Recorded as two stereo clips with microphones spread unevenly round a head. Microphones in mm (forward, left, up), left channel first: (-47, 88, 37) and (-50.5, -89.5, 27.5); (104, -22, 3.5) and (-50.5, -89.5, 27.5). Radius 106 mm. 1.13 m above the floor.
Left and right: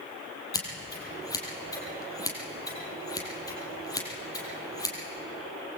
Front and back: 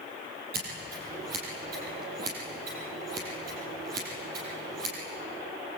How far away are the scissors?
About 6.5 m.